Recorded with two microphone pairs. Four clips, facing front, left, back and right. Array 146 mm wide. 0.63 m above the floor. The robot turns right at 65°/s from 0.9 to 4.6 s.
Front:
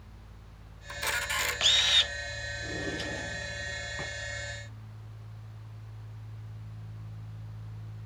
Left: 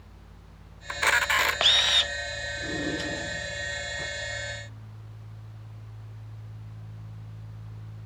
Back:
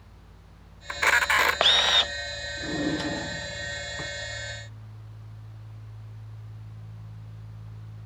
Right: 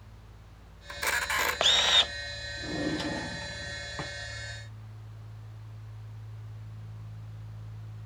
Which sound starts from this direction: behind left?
A camera shutter, at 0.9 s.